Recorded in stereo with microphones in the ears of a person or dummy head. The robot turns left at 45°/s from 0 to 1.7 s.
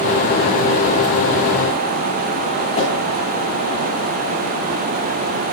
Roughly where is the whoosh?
Left.